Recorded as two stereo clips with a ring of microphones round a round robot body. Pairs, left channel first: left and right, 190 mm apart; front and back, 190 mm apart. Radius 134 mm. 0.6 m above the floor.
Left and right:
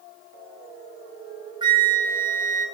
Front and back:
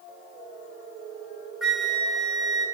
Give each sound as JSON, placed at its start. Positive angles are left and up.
{"t": 1.6, "sound": "a flute", "azimuth_deg": -95, "distance_m": 1.0}